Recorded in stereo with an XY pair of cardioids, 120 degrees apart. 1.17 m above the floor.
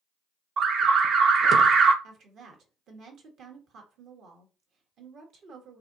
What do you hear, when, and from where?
0.6 s an alarm: 50° right, 0.7 m
2.0 s a woman speaking: 60° right, 1.3 m